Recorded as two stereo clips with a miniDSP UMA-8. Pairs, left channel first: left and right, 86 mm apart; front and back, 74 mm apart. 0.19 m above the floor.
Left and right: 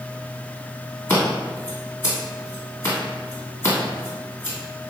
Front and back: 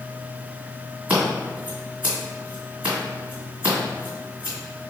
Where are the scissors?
130° left, 2.0 m.